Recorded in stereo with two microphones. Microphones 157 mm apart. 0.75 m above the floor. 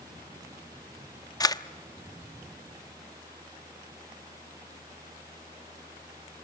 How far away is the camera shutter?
About 0.8 m.